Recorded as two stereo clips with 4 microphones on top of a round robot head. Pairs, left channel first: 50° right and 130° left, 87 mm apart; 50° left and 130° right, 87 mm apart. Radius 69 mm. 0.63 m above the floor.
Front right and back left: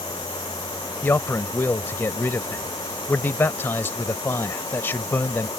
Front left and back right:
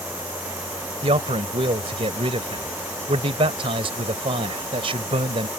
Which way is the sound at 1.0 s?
115° right.